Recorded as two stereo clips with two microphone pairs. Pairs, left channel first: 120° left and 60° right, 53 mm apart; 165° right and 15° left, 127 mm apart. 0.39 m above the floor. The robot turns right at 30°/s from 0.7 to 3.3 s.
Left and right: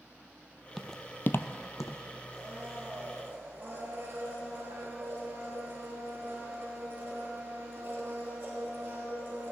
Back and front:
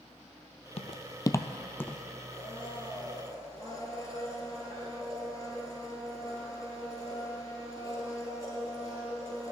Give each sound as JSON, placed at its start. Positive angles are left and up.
{"t": 0.8, "sound": "footsteps", "azimuth_deg": -150, "distance_m": 0.7}
{"t": 2.3, "sound": "a blender", "azimuth_deg": -130, "distance_m": 2.0}